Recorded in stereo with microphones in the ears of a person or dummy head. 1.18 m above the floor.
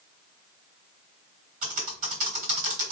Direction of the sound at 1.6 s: 35° right (ahead or behind).